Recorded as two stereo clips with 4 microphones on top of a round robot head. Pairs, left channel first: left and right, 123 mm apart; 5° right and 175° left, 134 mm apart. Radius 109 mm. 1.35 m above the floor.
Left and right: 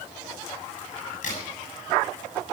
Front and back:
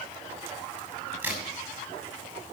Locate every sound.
0.8 s a crack: 100° left, 6.5 m